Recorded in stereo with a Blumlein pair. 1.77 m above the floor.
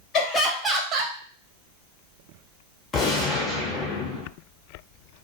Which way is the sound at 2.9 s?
25° left.